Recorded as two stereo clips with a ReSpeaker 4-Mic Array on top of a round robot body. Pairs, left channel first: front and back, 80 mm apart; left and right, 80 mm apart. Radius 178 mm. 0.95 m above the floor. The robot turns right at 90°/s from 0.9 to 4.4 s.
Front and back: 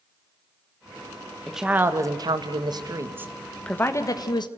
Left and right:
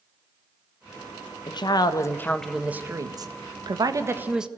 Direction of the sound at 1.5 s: 85° left.